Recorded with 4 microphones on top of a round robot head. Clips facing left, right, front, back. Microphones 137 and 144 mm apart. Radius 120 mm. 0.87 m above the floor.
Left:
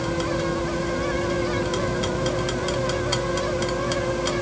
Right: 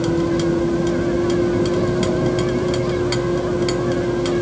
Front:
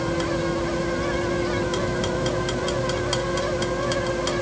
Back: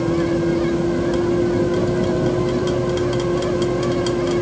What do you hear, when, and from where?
0.0 s a vehicle: 130° right; by 4.4 s 135° right